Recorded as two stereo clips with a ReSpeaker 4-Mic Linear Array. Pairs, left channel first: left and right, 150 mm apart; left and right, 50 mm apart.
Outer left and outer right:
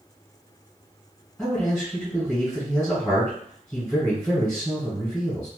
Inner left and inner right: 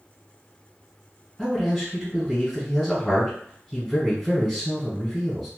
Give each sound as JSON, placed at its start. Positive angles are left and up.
{"t": 1.4, "sound": "a man speaking", "side_deg": 5, "distance_m": 1.5}